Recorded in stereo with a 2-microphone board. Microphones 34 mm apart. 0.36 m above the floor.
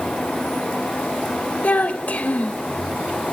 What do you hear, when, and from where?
1.6 s a child speaking: 50° left (ahead or behind), 0.5 m